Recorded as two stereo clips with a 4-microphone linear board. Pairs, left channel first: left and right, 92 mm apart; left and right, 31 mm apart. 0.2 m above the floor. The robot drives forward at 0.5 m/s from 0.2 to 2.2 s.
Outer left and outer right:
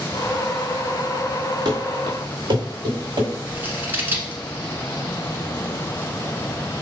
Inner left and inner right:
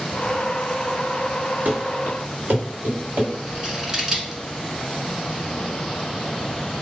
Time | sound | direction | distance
1.6 | running footsteps | 45° right (ahead or behind) | 1.6 m
3.5 | scissors | 20° right (ahead or behind) | 1.1 m